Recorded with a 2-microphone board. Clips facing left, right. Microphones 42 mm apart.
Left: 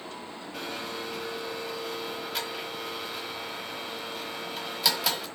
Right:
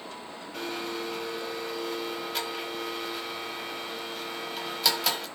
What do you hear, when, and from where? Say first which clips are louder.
0.5 s a blender: right 2 dB; 5° left (ahead or behind), 1.6 m